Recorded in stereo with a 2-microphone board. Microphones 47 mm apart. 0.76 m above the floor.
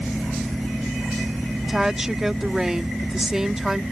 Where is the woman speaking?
10° right (ahead or behind).